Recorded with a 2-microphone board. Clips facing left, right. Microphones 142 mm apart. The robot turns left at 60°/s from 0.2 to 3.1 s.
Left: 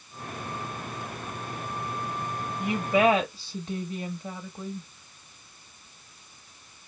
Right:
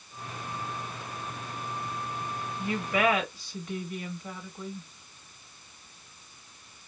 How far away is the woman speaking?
About 1.0 m.